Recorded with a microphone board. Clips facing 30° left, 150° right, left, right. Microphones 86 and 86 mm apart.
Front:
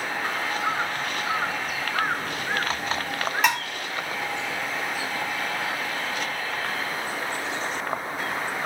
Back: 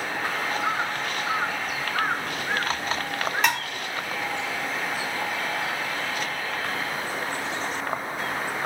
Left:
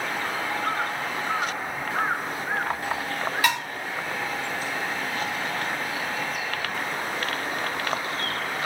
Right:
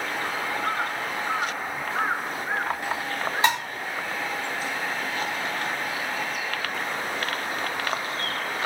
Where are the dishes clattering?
55° right, 0.6 m.